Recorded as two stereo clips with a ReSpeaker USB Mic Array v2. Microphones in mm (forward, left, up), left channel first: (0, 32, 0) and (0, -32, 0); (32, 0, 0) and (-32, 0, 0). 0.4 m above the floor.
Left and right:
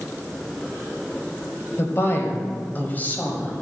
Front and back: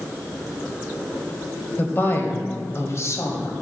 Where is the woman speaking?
55° left, 1.9 m; by 3.5 s 25° left, 2.5 m.